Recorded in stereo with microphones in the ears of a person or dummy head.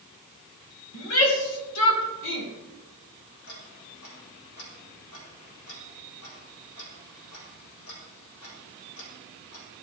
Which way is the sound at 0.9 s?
80° left.